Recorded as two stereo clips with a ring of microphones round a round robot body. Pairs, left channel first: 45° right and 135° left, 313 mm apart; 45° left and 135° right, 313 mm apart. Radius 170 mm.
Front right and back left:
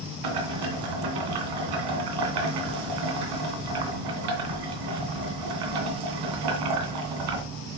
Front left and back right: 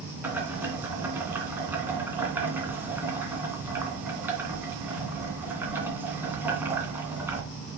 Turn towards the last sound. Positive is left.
turn(degrees=140)